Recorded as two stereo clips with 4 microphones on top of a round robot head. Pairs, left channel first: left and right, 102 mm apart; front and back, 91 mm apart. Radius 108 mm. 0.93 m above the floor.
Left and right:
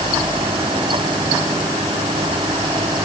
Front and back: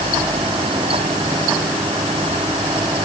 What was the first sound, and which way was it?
Only background noise.